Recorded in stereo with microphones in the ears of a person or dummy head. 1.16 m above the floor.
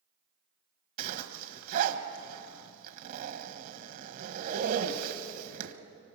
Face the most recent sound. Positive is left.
turn(degrees=-45)  # may be behind; listen again after turning